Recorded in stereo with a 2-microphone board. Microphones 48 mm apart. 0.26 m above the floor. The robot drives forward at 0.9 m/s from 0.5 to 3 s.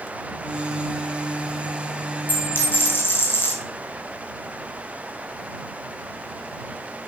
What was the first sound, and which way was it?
A dropped coin, 40° left (ahead or behind).